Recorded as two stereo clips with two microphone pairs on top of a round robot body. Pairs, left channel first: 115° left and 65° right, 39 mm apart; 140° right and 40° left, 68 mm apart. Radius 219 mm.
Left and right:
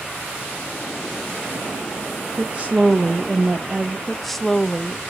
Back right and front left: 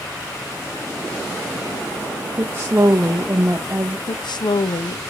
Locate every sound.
2.4 s a woman speaking: 5° right, 1.0 m
4.1 s a woman speaking: 160° right, 0.6 m